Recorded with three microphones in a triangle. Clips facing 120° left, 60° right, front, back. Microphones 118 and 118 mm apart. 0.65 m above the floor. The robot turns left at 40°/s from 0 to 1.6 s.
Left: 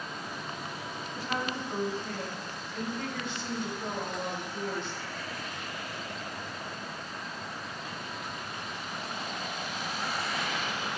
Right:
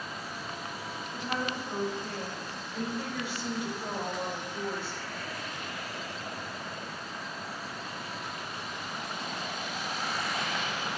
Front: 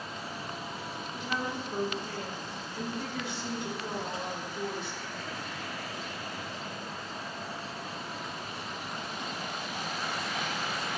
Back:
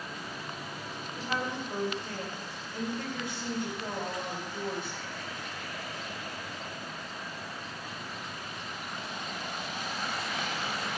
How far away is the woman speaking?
About 3 m.